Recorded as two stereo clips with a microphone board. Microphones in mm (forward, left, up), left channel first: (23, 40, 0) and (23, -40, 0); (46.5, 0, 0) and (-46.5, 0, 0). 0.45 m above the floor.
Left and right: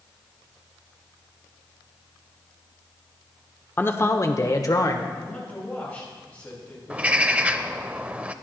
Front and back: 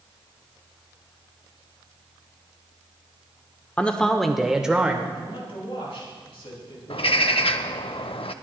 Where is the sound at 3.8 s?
60° left, 0.8 m; by 5.0 s 105° left, 1.1 m.